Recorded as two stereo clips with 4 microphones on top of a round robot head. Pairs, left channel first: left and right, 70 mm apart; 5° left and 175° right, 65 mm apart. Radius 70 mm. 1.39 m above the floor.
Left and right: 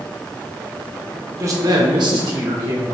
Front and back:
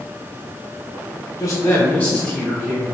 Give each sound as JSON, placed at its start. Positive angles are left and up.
{"t": 1.4, "sound": "a man speaking", "azimuth_deg": -45, "distance_m": 0.8}